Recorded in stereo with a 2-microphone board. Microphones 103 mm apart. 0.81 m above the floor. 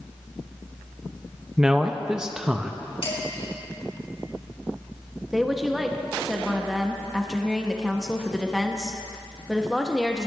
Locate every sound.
1.6 s a man speaking: 5° right (ahead or behind), 0.6 m
3.0 s dishes clattering: 65° left (ahead or behind), 5 m
5.3 s a woman speaking: centre (ahead or behind), 0.9 m